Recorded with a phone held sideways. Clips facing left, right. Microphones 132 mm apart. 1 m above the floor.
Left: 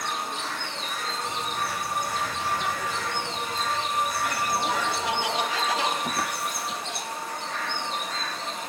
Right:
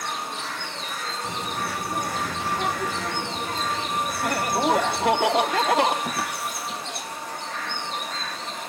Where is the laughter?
55° right (ahead or behind), 1.6 m.